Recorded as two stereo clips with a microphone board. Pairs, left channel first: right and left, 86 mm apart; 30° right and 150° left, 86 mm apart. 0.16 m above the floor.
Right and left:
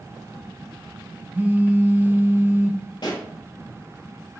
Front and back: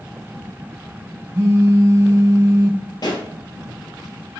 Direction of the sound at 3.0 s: 65° right.